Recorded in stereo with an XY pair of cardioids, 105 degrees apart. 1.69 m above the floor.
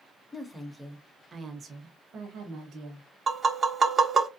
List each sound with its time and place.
0.3 s a woman speaking: 10° left, 0.8 m; by 3.1 s 75° right, 1.3 m
3.3 s tapping: 35° right, 0.6 m